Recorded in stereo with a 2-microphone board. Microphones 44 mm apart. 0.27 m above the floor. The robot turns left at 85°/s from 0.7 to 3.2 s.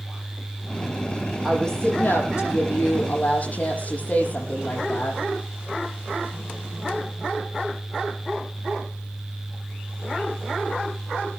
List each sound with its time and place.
1.4 s a woman speaking: 175° right, 8 m; by 5.2 s 35° left, 8 m